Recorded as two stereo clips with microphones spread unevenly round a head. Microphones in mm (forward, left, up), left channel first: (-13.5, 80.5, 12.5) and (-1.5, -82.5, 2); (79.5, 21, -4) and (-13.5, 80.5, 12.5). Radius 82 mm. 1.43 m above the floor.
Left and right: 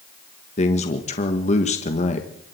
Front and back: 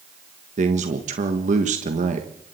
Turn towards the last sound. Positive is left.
turn(degrees=145)